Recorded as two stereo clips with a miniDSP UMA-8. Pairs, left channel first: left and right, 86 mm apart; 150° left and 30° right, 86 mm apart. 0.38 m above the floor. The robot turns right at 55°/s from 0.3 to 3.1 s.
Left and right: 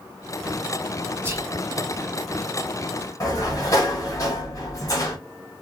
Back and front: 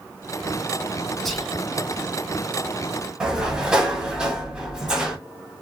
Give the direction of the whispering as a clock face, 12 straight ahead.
4 o'clock.